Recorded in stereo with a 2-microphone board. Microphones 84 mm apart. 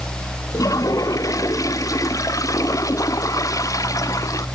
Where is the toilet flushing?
40° left (ahead or behind).